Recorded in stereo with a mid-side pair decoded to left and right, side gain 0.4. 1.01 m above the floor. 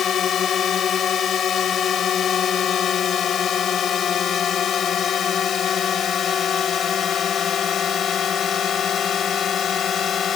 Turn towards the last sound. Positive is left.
turn(degrees=60)